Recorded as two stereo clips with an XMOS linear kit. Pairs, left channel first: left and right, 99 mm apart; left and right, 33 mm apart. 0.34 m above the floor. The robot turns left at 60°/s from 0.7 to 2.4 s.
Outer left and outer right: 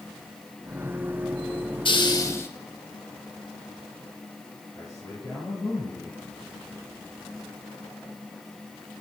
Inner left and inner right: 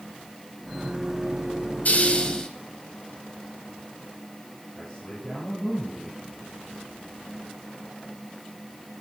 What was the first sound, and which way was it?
A hiss, 60° left.